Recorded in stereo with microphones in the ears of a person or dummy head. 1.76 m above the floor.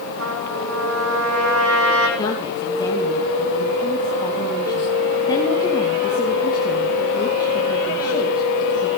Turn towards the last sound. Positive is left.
turn(degrees=20)  # may be behind; listen again after turning